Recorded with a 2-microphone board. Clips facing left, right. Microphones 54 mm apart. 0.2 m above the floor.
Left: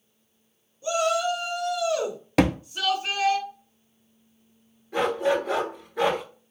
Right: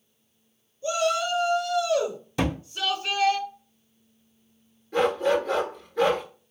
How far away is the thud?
About 0.5 m.